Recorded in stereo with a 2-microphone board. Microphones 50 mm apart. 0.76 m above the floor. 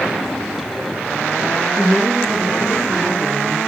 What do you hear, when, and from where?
1.8 s a woman speaking: 10° right (ahead or behind), 9.5 m; by 3.6 s 15° right (ahead or behind), 10.5 m